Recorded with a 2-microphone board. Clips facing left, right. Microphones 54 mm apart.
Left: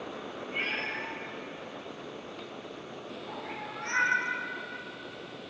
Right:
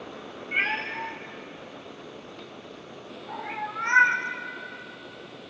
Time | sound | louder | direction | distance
0.5 | a cat meowing | right 6 dB | 70° right (ahead or behind) | 3 m